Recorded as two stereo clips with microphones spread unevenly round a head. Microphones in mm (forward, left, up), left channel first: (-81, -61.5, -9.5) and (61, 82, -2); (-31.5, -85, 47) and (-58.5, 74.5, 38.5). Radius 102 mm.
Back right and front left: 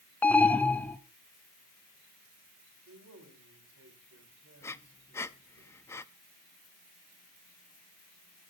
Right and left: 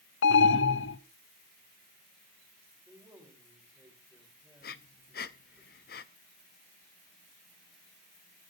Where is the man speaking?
20° left, 4.5 m.